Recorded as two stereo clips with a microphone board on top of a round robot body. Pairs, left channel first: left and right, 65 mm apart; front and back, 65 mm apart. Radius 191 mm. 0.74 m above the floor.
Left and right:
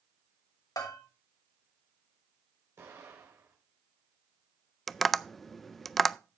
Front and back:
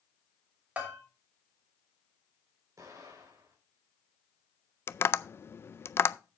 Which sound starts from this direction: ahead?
Tapping, at 4.9 s.